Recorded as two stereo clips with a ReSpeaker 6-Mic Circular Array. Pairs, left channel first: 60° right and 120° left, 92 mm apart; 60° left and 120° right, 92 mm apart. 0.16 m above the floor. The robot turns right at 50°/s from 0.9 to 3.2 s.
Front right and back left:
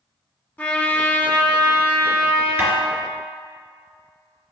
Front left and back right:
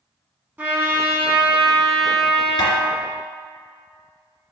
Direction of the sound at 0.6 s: 90° right.